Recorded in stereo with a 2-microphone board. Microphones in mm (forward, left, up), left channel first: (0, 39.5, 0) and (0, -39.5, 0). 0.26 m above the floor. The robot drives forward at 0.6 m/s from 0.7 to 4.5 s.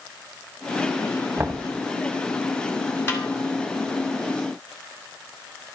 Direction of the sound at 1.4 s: 25° right (ahead or behind).